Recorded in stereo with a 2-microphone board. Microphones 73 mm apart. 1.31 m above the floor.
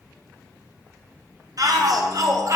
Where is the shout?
55° right (ahead or behind), 0.9 m; by 2.6 s 45° right (ahead or behind), 0.8 m.